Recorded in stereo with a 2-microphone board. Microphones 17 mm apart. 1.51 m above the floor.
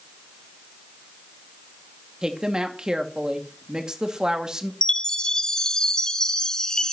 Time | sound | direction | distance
2.2 | a woman speaking | 45° right (ahead or behind) | 2 m
4.8 | a chime | 45° left (ahead or behind) | 1.2 m